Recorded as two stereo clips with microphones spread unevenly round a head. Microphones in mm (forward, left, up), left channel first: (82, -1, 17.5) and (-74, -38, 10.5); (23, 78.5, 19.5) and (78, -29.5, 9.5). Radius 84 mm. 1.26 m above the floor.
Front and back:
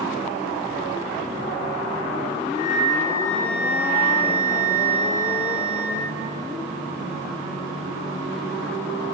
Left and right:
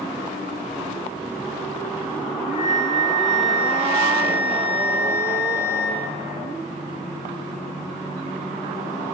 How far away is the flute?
About 6.5 m.